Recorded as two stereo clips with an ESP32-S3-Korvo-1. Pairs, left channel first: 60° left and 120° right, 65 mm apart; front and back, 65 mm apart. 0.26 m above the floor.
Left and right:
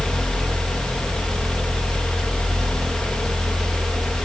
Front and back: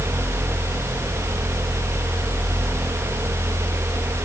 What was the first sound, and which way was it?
Only background noise.